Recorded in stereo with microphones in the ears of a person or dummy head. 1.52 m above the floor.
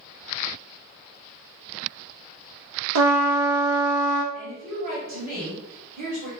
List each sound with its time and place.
3.0 s a trumpet: 75° right (ahead or behind), 0.6 m
4.3 s a woman speaking: 50° right (ahead or behind), 1.0 m